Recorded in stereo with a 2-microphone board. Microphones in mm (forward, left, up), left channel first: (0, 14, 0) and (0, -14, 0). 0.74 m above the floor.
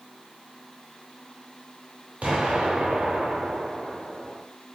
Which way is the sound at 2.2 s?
55° right (ahead or behind).